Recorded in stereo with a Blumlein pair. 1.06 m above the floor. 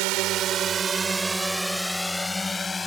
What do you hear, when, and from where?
0.0 s a drone: 45° right; by 2.9 s 15° left